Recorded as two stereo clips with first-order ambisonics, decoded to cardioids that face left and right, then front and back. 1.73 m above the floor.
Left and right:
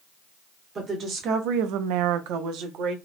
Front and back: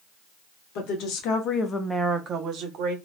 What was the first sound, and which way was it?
A woman speaking, 25° right.